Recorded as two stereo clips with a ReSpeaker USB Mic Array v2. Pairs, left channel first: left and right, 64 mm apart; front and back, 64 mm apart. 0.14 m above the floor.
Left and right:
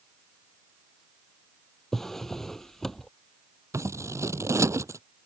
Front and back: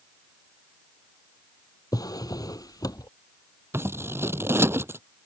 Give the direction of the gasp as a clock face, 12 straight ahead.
No gasp in this recording.